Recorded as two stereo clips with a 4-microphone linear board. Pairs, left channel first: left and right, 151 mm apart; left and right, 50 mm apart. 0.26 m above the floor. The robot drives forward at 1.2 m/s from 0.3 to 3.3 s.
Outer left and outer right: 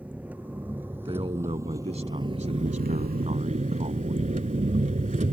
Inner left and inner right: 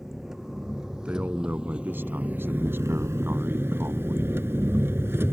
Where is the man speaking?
35° right (ahead or behind); by 4.3 s 50° right (ahead or behind).